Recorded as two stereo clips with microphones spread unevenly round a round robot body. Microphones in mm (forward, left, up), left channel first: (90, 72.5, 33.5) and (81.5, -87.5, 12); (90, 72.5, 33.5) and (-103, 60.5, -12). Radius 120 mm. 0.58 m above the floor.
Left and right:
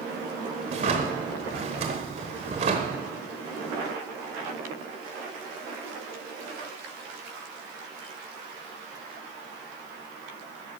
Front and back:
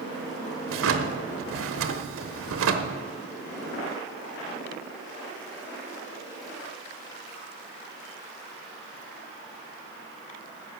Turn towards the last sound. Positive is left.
turn(degrees=-155)